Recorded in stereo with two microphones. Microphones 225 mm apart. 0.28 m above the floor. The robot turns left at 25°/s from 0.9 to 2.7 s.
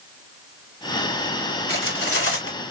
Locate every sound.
1.7 s cutlery clinking: 55° left (ahead or behind), 1.8 m; by 2.7 s 75° left (ahead or behind), 1.8 m